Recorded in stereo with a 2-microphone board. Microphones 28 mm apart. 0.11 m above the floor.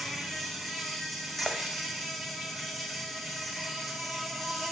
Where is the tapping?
Centre (ahead or behind), 2.5 m.